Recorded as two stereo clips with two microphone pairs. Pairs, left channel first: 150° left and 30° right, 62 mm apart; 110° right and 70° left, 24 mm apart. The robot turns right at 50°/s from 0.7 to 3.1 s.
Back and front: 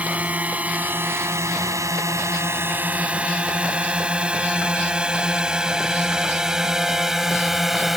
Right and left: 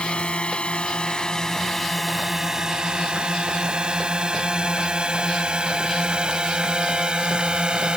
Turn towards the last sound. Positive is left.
turn(degrees=55)